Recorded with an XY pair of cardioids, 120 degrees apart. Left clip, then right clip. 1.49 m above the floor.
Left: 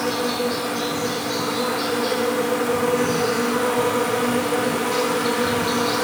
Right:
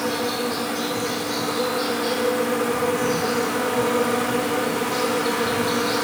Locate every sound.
0.0 s an insect: 5° left, 1.0 m